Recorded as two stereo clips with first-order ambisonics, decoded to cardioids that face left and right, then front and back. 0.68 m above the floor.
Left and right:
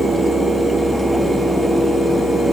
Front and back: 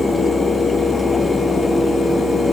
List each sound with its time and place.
Only background noise.